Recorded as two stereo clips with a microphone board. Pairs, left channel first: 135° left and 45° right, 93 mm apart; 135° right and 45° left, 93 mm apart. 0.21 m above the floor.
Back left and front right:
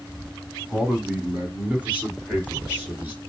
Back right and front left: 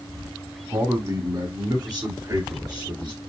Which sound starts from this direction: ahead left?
A man speaking, at 0.7 s.